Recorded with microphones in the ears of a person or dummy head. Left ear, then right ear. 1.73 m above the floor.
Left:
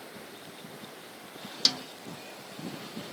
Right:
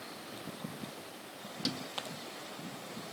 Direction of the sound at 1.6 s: 40° left (ahead or behind).